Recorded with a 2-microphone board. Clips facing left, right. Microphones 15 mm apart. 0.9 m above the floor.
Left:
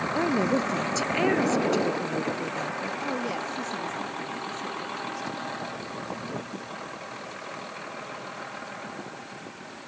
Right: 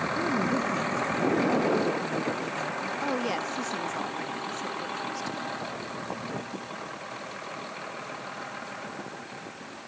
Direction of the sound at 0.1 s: 65° left (ahead or behind).